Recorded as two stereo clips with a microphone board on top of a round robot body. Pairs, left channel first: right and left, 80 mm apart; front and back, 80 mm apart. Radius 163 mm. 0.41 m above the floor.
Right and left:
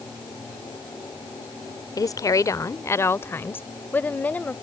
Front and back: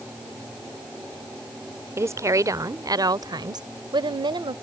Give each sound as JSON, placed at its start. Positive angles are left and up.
{"t": 2.0, "sound": "a woman speaking", "azimuth_deg": -125}